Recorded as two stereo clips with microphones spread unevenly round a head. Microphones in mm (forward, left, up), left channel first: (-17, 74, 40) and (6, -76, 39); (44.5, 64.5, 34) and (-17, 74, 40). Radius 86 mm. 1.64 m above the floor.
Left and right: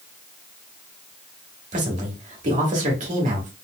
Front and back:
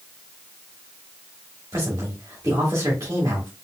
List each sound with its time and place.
1.7 s a man speaking: 125° right, 1.8 m